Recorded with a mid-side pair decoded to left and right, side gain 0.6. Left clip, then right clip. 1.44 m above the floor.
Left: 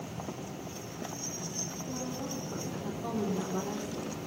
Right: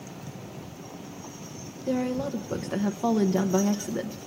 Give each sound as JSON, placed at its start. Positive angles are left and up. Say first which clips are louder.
{"t": 1.9, "sound": "a woman speaking", "louder": "right 9 dB", "azimuth_deg": -70, "distance_m": 1.1}